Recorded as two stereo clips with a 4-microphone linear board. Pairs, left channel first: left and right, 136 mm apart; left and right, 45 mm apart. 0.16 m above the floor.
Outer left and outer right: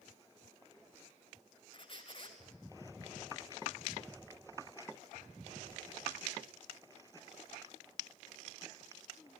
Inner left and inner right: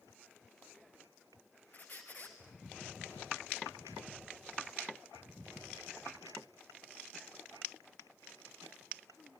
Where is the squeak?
40° left (ahead or behind), 1.8 m.